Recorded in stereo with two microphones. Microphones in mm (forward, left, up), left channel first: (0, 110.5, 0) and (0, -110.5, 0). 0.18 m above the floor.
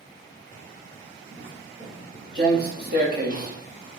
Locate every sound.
1.3 s footsteps: 55° right (ahead or behind), 5 m; by 3.6 s 35° right (ahead or behind), 3.5 m